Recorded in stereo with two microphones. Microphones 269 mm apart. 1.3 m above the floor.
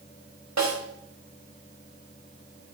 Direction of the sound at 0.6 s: 85° right.